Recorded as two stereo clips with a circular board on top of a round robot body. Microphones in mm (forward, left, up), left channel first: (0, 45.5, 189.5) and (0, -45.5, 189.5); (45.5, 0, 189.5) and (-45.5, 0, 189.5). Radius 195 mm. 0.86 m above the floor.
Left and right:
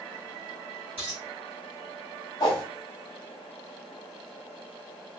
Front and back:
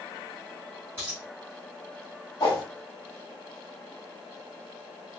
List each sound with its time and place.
1.0 s a dropped coin: 115° right, 0.9 m
2.4 s a whoosh: 45° left, 0.8 m